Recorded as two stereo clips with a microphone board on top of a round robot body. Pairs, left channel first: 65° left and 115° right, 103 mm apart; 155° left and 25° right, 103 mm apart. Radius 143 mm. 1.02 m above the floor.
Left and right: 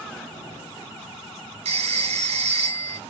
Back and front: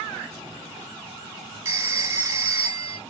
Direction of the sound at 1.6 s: 90° right.